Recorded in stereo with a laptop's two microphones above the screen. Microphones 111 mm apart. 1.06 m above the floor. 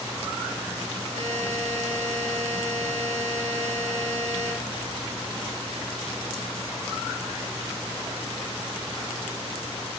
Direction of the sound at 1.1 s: 70° right (ahead or behind).